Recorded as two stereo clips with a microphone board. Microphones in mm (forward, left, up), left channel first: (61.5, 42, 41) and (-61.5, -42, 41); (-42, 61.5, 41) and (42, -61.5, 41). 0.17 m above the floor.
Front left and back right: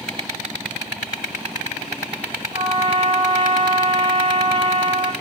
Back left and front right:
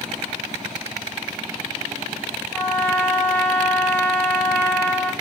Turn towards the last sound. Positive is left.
turn(degrees=-165)